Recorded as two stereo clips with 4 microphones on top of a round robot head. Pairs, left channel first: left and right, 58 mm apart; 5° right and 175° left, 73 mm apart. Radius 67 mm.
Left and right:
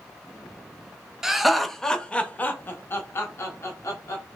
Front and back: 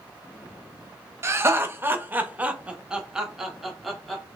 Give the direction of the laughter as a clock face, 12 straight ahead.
6 o'clock.